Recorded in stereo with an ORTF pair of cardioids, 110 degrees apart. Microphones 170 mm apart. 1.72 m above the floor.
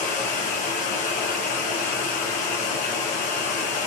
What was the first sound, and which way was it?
Running water, 55° left.